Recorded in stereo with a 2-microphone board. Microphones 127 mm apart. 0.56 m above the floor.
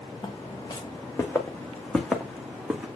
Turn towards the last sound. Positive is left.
turn(degrees=-10)  # may be behind; listen again after turning